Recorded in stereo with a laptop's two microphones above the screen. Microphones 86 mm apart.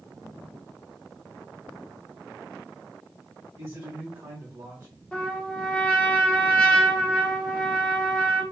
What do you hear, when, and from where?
3.6 s a man speaking: 30° right (ahead or behind), 1.4 m
5.1 s a trumpet: 15° left (ahead or behind), 0.7 m